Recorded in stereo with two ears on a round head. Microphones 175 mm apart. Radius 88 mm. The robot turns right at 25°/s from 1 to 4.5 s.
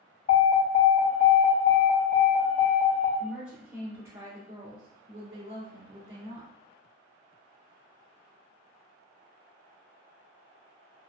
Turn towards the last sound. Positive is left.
turn(degrees=-150)